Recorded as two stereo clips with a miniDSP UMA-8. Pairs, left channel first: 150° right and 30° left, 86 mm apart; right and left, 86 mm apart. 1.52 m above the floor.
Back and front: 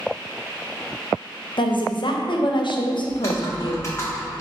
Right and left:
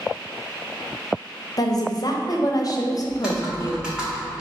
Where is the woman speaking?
130° right, 0.6 m.